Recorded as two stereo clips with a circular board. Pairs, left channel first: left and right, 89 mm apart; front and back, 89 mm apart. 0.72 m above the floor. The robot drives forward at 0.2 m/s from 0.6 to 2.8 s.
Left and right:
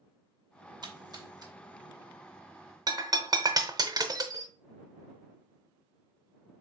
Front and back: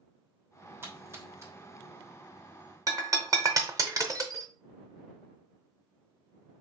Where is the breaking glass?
130° right, 0.7 m.